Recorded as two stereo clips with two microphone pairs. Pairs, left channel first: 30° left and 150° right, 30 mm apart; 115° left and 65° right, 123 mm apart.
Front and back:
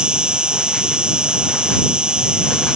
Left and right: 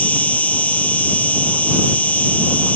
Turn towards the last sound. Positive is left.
turn(degrees=-175)